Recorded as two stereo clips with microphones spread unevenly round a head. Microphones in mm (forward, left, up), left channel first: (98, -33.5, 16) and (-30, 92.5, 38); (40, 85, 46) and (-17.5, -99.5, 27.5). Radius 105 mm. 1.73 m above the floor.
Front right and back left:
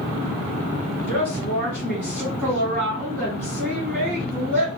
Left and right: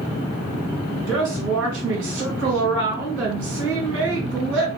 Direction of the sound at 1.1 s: 145° right.